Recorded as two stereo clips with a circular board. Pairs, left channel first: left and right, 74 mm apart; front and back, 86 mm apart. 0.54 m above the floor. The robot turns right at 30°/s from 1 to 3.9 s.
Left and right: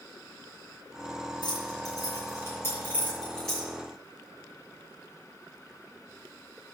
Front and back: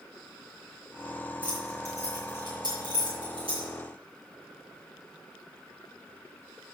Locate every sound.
1.4 s keys jangling: 110° left, 6 m; by 3.7 s straight behind, 6 m